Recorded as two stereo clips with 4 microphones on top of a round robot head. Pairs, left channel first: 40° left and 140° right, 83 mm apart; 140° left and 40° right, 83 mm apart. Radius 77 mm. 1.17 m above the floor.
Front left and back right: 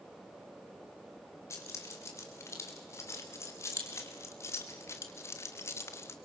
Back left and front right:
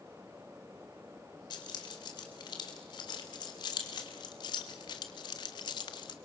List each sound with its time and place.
1.5 s keys jangling: 100° left, 4 m; by 6.2 s 105° left, 1.4 m